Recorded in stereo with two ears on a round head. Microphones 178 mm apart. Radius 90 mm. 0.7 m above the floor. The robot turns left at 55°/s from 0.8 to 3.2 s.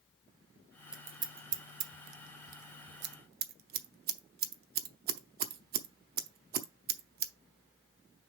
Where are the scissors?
5° right (ahead or behind), 0.7 m; by 7.3 s 50° right (ahead or behind), 0.7 m.